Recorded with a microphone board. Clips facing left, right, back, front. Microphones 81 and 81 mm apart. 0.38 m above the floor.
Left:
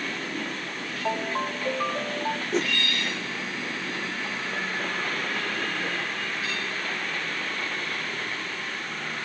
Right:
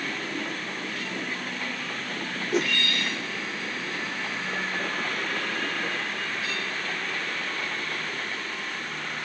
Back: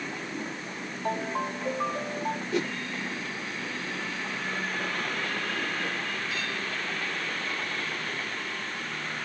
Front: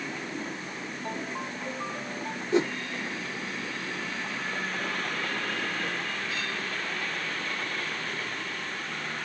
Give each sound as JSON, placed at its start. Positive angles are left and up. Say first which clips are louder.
{"t": 1.1, "sound": "a ringtone", "louder": "left 6 dB, back 7 dB", "azimuth_deg": 120}
{"t": 2.5, "sound": "a whoosh", "louder": "right 3 dB, front 7 dB", "azimuth_deg": -10}